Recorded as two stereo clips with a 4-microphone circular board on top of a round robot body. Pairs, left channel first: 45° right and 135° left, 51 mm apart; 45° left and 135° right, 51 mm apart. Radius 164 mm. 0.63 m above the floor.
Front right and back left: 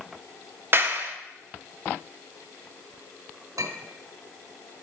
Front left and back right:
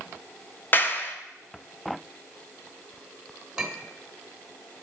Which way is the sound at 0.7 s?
90° left.